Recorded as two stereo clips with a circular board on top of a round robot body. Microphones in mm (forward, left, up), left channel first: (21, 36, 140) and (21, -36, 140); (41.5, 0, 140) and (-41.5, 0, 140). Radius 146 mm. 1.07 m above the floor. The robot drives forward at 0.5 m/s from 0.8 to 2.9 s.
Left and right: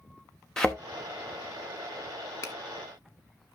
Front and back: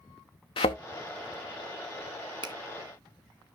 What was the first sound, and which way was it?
A thud, 10° left.